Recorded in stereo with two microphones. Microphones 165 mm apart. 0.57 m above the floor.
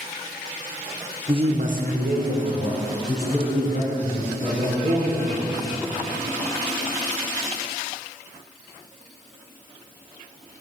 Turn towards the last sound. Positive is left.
turn(degrees=-85)